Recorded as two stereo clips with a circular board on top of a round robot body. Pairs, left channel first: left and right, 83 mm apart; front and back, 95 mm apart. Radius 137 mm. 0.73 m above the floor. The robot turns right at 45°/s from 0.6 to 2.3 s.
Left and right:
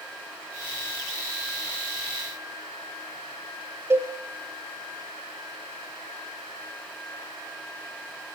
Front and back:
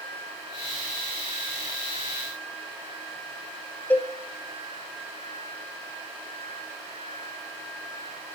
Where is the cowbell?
55° right, 0.9 m.